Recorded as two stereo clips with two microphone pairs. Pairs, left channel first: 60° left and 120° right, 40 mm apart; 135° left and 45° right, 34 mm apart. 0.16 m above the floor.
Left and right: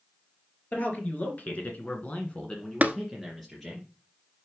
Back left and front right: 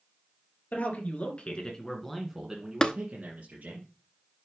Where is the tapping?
165° right, 0.7 m.